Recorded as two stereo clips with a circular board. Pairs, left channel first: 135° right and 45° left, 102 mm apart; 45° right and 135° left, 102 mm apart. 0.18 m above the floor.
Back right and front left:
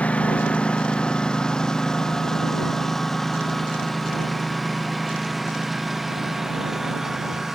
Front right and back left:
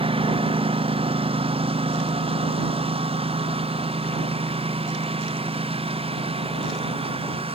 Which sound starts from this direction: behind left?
A lawn mower, at 0.0 s.